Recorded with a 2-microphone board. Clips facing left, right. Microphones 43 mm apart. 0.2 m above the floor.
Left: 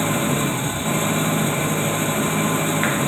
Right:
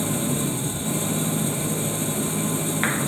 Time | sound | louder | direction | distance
0.0 | an engine running | left 5 dB | 45° left (ahead or behind) | ?